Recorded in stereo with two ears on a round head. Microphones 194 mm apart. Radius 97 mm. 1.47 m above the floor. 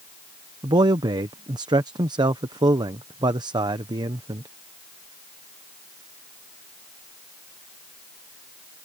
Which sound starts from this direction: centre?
A man speaking, at 0.6 s.